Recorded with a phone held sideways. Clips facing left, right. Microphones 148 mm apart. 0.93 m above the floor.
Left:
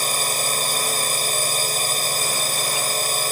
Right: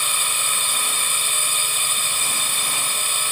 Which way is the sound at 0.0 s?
40° left (ahead or behind).